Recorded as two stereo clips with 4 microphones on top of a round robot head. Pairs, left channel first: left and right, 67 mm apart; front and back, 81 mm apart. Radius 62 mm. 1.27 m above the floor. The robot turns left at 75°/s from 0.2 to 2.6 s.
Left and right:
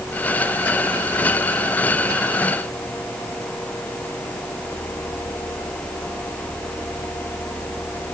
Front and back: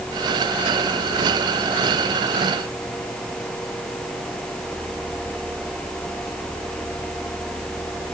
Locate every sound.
Only background noise.